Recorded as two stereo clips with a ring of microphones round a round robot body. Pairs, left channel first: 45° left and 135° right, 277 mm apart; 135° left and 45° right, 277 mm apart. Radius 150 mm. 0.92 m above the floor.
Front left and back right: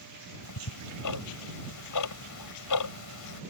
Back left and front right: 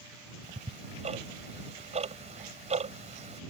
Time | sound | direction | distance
0.4 | ticking | 25° left | ?